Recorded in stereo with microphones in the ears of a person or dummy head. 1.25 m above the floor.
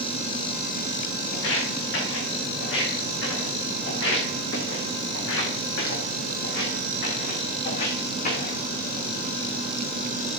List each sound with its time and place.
1.3 s footsteps: 70° left (ahead or behind), 5.5 m; by 8.6 s 50° left (ahead or behind), 3.5 m